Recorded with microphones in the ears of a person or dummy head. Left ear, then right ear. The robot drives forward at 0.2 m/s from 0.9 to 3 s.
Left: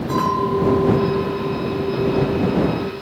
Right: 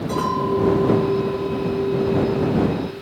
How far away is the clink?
About 1.1 m.